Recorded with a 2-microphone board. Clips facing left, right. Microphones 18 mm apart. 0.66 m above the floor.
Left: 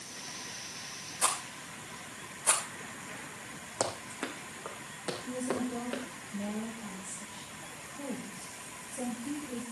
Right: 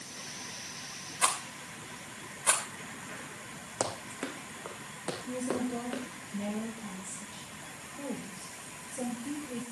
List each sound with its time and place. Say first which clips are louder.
1.2 s a rattle: right 2 dB; 30° right (ahead or behind), 2.5 m
3.8 s running footsteps: even; 5° left (ahead or behind), 2.5 m; by 6.0 s 10° left (ahead or behind), 4 m
5.2 s a woman speaking: right 1 dB; 25° right (ahead or behind), 3.5 m